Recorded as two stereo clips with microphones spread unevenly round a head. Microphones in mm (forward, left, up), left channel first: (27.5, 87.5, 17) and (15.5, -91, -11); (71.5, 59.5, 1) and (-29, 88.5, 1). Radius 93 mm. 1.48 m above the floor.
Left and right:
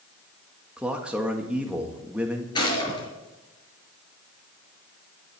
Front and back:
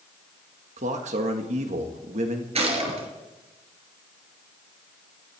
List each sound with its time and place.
0.8 s a man speaking: straight behind, 1.7 m
2.5 s a gunshot: 150° left, 4.5 m